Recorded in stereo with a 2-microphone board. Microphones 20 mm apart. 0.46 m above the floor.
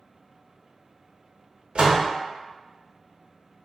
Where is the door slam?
55° right (ahead or behind), 0.7 m.